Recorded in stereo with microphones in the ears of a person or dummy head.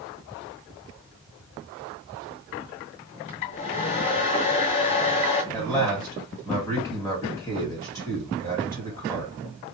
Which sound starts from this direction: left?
A hair dryer, at 3.3 s.